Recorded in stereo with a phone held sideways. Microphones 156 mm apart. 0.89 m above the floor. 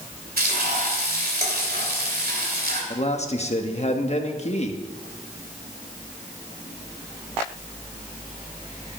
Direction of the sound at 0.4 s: 85° right.